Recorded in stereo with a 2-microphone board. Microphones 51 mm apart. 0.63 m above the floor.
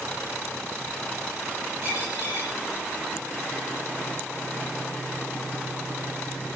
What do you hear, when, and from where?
1.8 s a dropped coin: 55° right (ahead or behind), 5 m